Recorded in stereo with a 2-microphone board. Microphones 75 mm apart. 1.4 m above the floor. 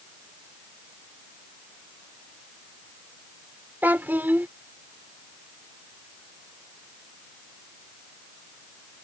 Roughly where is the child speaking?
Right.